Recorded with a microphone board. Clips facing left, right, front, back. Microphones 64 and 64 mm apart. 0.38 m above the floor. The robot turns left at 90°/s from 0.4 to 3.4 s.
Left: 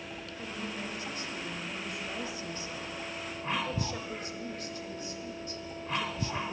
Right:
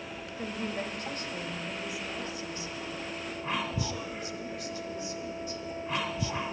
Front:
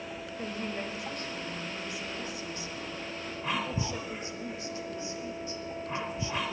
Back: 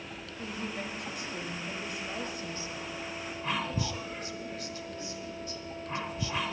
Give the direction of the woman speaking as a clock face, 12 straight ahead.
1 o'clock.